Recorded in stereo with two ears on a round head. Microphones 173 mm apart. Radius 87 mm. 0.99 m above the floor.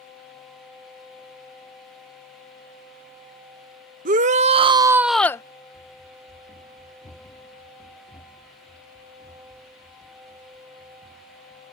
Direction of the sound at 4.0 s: 40° right (ahead or behind).